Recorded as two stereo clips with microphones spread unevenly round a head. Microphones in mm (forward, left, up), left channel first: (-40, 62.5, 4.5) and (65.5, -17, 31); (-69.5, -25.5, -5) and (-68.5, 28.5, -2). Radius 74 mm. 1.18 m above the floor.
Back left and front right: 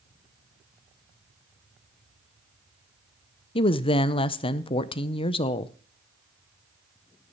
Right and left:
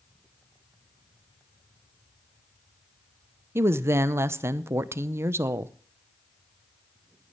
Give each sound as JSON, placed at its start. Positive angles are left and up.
{"t": 3.5, "sound": "a woman speaking", "azimuth_deg": 120, "distance_m": 0.7}